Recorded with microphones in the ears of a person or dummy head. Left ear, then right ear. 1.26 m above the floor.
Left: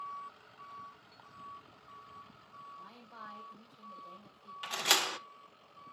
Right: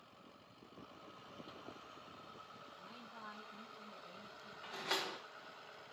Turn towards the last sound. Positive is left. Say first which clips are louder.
# left 10 dB
turn(degrees=75)  # may be behind; listen again after turning